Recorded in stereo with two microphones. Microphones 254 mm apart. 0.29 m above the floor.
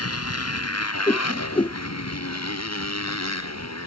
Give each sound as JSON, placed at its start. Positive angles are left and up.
{"t": 0.0, "sound": "a motorcycle", "side_deg": 70}
{"t": 1.1, "sound": "a whoosh", "side_deg": 20}